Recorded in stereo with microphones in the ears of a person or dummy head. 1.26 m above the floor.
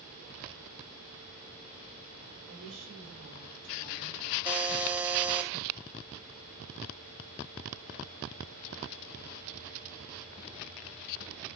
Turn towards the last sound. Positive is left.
turn(degrees=-15)  # may be behind; listen again after turning